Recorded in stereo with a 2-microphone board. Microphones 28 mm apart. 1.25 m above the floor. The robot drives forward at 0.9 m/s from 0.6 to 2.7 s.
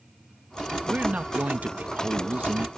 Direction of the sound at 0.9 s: 50° right (ahead or behind).